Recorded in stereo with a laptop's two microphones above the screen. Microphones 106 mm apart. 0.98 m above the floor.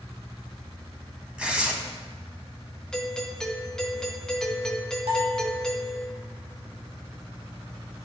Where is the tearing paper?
10° right (ahead or behind), 1.3 m.